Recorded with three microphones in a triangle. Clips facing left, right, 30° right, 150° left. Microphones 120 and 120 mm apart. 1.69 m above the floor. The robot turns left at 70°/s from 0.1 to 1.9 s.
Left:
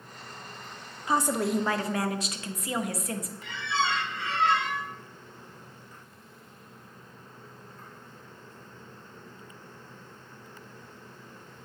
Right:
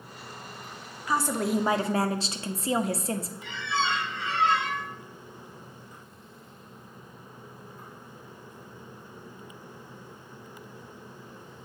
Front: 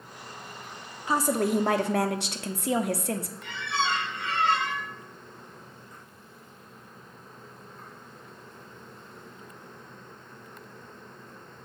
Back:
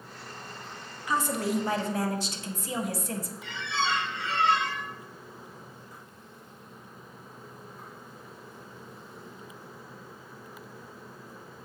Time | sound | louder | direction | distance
1.1 | a woman speaking | left 1 dB, front 3 dB | 25° left | 0.7 m
3.4 | a squeak | left 2 dB, even | 15° right | 4 m